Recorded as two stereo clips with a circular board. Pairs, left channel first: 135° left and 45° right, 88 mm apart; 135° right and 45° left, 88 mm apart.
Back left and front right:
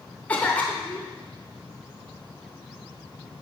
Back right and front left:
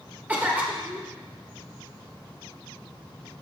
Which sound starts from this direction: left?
A cough, at 0.3 s.